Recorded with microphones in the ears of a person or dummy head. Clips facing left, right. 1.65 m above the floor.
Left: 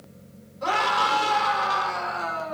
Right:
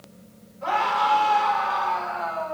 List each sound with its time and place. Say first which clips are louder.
0.6 s a scream: right 1 dB; 65° left (ahead or behind), 6.5 m